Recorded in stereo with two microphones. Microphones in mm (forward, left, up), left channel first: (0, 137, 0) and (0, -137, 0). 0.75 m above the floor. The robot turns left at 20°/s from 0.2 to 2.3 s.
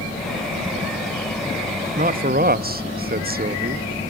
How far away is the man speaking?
About 0.5 m.